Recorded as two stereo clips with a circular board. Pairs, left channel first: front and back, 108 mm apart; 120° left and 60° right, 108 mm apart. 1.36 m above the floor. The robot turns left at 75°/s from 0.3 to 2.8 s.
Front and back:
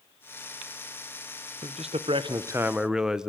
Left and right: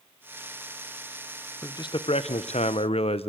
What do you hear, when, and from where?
1.6 s a man speaking: 175° right, 0.9 m; by 3.3 s 95° left, 0.9 m